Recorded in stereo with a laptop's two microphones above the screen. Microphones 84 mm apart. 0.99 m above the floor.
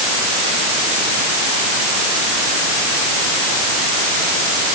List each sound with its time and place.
Only background noise.